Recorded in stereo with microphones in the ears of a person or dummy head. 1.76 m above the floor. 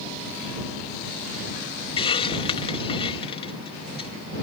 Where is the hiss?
30° left (ahead or behind).